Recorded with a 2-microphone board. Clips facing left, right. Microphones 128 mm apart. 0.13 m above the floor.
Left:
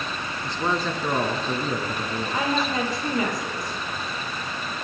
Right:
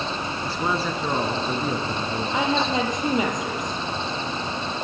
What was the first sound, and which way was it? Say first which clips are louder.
A man speaking: even; 5° right (ahead or behind).